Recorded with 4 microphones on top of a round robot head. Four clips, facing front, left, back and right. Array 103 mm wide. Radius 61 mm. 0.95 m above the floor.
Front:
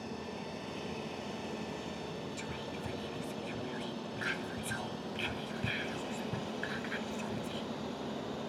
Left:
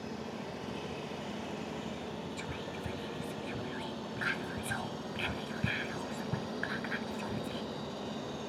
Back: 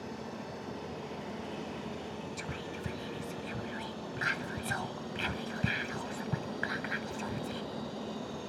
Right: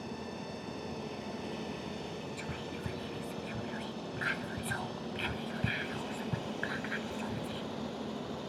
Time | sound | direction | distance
2.4 | whispering | 175° right | 0.7 m